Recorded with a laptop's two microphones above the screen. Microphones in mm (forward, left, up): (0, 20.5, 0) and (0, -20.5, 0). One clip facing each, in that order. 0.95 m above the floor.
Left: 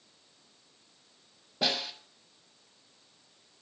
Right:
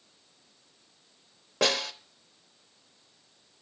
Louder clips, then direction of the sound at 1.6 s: Right 4 dB; 80° right.